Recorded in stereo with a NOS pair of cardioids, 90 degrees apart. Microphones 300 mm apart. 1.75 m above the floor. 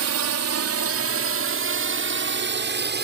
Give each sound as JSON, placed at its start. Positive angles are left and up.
{"t": 0.0, "sound": "a drone", "azimuth_deg": -60}